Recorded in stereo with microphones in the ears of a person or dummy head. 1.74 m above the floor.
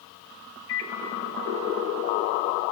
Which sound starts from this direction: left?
A microwave, at 0.7 s.